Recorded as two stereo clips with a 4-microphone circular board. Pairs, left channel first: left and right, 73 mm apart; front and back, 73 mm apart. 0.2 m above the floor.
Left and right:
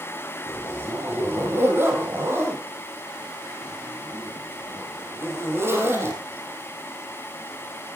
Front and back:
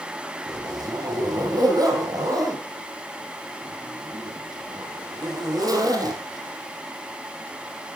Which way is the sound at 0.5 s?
145° right.